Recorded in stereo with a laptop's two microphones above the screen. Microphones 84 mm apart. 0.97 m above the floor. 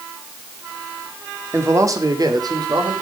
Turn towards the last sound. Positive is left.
turn(degrees=-60)  # may be behind; listen again after turning